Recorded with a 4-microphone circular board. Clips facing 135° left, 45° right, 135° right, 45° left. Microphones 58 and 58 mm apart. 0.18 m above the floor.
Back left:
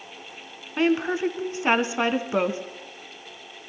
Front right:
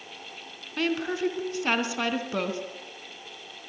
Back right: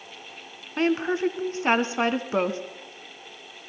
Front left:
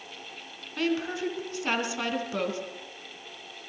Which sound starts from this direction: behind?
A woman speaking, at 0.8 s.